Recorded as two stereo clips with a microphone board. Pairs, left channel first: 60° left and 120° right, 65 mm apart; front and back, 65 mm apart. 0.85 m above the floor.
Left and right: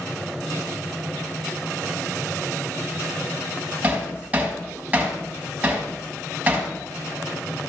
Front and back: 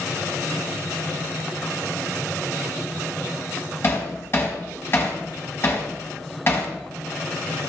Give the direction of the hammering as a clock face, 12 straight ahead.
2 o'clock.